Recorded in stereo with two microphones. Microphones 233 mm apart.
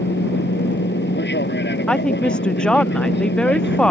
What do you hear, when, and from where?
0.0 s an aircraft: 50° left (ahead or behind)
1.9 s a woman speaking: 5° left (ahead or behind)